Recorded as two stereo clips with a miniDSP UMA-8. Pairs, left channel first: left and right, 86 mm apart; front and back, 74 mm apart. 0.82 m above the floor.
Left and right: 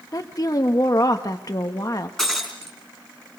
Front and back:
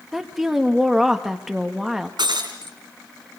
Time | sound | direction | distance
0.1 | a woman speaking | 95° left | 1.2 m
2.2 | breaking glass | 175° left | 4.5 m